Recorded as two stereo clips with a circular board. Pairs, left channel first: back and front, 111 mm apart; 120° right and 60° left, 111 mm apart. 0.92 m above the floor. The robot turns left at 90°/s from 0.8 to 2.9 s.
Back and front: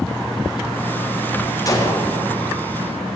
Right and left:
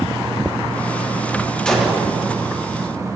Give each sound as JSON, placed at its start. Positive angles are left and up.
{"t": 1.6, "sound": "a gunshot", "azimuth_deg": 165, "distance_m": 0.9}